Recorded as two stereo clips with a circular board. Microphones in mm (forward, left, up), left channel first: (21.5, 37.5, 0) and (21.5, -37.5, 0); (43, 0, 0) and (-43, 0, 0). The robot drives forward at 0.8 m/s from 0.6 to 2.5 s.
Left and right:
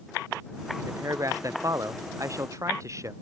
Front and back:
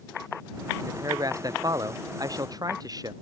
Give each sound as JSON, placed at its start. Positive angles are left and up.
{"t": 0.8, "sound": "a man speaking", "azimuth_deg": -135}